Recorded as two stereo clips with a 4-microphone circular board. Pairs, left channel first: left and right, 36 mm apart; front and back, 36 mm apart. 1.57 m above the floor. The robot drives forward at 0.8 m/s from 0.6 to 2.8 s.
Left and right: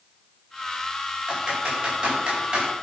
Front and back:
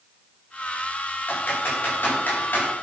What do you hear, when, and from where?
1.3 s typing on a keyboard: 30° right, 5 m; by 2.6 s 40° right, 4 m